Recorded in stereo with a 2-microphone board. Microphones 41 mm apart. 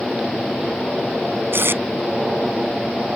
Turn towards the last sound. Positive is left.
turn(degrees=-70)  # may be behind; listen again after turning